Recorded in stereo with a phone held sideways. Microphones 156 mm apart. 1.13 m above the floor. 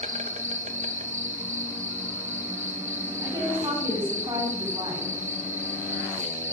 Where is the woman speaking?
25° right (ahead or behind), 7 m.